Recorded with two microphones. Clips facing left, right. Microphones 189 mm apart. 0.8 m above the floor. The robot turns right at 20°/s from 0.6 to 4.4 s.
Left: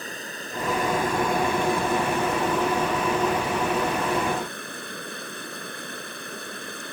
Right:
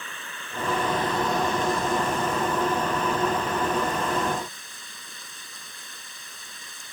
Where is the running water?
40° left; by 6.9 s 115° left.